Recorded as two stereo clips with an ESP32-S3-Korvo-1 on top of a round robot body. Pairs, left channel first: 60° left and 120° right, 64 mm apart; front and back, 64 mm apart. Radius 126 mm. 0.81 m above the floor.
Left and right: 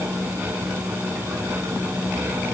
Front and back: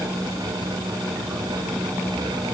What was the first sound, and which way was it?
Only background noise.